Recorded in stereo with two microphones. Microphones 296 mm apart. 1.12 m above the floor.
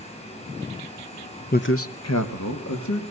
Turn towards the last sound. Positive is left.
turn(degrees=70)  # may be behind; listen again after turning